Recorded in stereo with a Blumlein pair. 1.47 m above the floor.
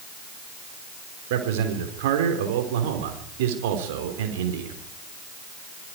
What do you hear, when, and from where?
1.3 s a man speaking: 50° right, 4.5 m